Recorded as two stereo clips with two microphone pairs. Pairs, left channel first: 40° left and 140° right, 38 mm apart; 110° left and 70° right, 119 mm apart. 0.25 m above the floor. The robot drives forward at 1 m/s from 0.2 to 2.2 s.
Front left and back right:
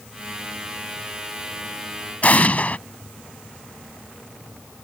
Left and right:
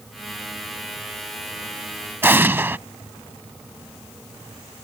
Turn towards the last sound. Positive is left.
turn(degrees=0)